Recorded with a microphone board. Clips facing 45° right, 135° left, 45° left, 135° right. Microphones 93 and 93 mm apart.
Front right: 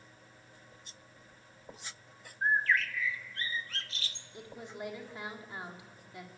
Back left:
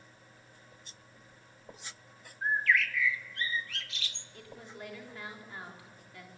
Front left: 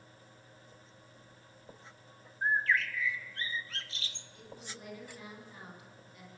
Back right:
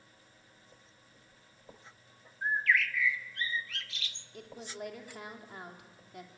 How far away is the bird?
About 0.9 m.